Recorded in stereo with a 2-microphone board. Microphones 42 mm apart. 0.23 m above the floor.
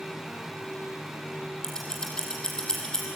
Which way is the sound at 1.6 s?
15° left (ahead or behind).